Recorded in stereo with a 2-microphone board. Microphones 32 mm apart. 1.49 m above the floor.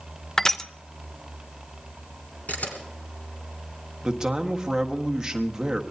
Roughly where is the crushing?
Centre.